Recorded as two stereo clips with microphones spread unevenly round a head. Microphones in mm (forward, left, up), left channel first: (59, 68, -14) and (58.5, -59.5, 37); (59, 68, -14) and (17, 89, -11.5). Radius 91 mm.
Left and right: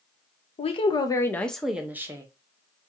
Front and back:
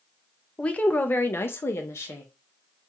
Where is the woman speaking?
40° left, 0.7 m; by 2.2 s 45° right, 0.9 m.